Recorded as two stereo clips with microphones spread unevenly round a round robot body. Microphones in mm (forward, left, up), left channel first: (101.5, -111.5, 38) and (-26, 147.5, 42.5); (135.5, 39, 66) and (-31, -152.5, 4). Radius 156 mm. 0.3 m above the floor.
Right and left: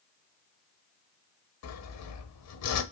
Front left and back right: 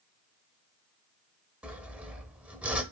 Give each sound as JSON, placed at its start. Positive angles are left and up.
{"t": 1.6, "sound": "sawing", "azimuth_deg": -55, "distance_m": 0.7}